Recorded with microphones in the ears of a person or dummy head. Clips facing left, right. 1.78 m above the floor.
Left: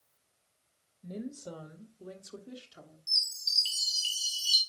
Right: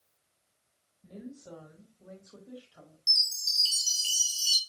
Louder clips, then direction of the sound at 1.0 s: Left 5 dB; 65° left (ahead or behind).